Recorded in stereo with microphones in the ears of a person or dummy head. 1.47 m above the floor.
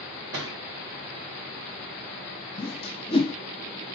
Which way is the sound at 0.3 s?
20° right (ahead or behind).